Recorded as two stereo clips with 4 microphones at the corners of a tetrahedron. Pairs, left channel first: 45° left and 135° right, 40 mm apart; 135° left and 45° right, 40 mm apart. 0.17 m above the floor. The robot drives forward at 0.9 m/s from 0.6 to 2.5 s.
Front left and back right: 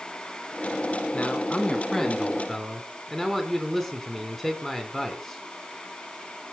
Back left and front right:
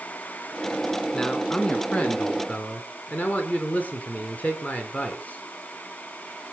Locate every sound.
1.1 s a man speaking: 75° left, 1.8 m; by 5.4 s 130° left, 2.0 m